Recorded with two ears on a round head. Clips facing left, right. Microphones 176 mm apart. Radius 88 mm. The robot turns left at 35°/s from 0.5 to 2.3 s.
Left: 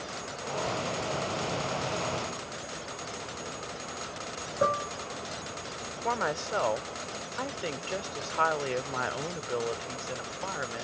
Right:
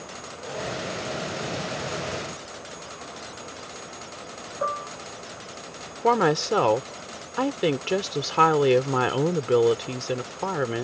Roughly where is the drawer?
I don't hear a drawer.